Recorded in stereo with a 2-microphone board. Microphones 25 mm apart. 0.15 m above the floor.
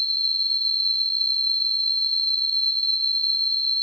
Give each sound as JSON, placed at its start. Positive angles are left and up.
{"t": 0.0, "sound": "an insect", "side_deg": 35, "distance_m": 0.8}